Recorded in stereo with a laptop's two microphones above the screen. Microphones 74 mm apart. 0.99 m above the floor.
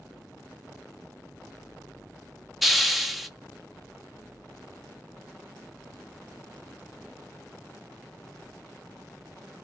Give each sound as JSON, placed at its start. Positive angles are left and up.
{"t": 2.6, "sound": "a hiss", "side_deg": 0, "distance_m": 0.7}